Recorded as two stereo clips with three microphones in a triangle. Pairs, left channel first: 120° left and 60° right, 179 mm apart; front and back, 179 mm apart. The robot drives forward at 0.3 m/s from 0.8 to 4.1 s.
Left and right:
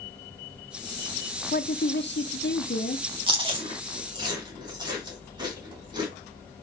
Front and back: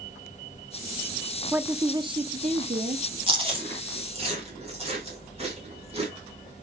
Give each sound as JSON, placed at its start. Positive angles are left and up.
{"t": 1.5, "sound": "a woman speaking", "azimuth_deg": 95, "distance_m": 0.5}
{"t": 3.3, "sound": "chewing", "azimuth_deg": -120, "distance_m": 2.5}